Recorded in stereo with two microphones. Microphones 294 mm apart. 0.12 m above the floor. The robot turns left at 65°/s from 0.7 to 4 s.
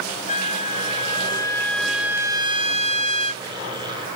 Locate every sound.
0.3 s a trumpet: 25° left (ahead or behind); by 3.4 s 25° right (ahead or behind)